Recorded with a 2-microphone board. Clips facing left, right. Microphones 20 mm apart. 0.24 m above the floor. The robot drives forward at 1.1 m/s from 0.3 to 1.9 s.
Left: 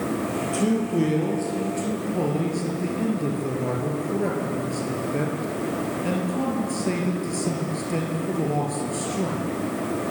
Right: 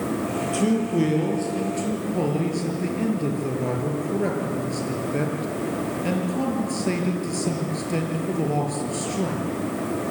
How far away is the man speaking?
About 7 m.